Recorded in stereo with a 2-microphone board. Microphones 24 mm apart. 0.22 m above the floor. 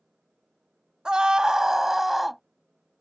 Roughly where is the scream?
Right.